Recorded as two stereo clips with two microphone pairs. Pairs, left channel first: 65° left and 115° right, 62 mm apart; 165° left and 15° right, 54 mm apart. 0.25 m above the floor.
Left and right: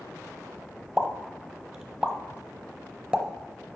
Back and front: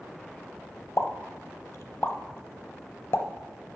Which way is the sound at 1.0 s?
175° left.